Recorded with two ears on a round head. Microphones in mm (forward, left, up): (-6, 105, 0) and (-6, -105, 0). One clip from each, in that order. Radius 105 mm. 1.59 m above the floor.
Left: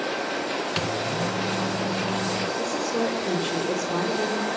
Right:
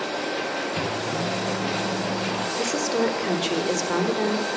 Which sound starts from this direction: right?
A woman speaking, at 2.6 s.